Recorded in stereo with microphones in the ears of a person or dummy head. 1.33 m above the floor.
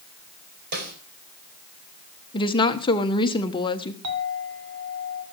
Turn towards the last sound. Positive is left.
turn(degrees=-80)